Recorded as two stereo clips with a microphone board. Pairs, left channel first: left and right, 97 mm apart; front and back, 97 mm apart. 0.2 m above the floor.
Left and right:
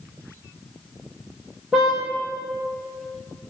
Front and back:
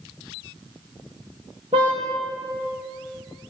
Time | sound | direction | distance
1.7 | a car horn | 175° right | 9 m